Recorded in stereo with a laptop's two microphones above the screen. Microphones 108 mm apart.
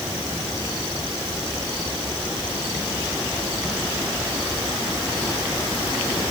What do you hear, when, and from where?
Only background noise.